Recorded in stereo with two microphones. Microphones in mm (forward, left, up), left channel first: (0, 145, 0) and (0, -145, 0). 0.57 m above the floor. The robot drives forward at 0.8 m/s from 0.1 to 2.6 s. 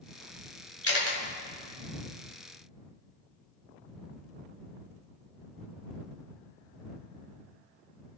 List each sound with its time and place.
0.8 s a camera shutter: 50° left (ahead or behind), 2 m; by 1.2 s 55° left (ahead or behind), 2 m